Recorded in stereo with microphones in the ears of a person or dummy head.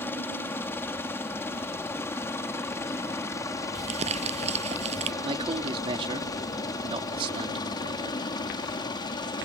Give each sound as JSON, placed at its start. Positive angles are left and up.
{"t": 0.0, "sound": "a helicopter", "side_deg": 10}
{"t": 3.8, "sound": "crumpling", "side_deg": -35}
{"t": 5.2, "sound": "a man speaking", "side_deg": -30}